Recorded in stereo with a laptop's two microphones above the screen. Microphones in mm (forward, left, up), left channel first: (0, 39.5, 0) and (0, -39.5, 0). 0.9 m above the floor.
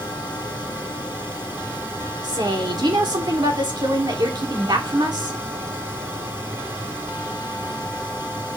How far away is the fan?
About 5 m.